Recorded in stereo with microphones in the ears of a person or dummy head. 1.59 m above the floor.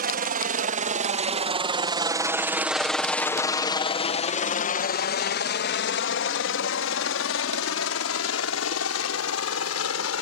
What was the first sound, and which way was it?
A helicopter, 50° right (ahead or behind).